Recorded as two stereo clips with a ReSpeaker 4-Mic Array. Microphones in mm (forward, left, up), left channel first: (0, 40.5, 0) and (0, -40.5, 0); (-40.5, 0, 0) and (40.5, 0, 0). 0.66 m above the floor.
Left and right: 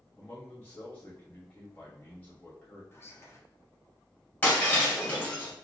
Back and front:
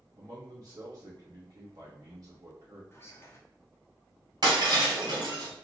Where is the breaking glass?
25° left, 1.8 m.